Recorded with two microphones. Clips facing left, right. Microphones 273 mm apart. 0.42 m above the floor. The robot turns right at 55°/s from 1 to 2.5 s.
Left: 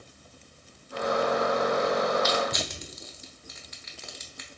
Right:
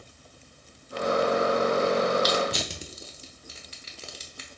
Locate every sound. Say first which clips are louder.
2.2 s crushing: right 2 dB; 40° right (ahead or behind), 0.8 m; by 4.5 s 35° right (ahead or behind), 0.8 m